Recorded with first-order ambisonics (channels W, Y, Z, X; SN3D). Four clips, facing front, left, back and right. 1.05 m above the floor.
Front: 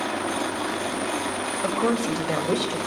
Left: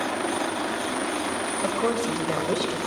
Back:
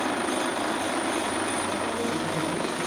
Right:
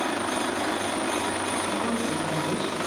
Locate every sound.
1.6 s a woman speaking: 35° left, 6 m